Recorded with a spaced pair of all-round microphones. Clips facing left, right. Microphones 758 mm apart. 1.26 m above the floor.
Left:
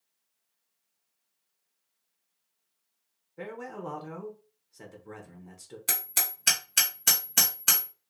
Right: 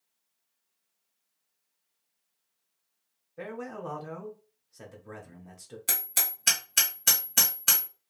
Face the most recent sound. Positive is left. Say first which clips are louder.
# left 1 dB
turn(degrees=0)  # may be behind; listen again after turning